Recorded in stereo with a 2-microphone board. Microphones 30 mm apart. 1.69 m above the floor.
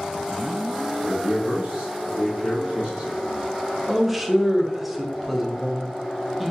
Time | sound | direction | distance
1.0 | a man speaking | 50° right (ahead or behind) | 2.0 m
3.9 | a man speaking | 5° right (ahead or behind) | 0.6 m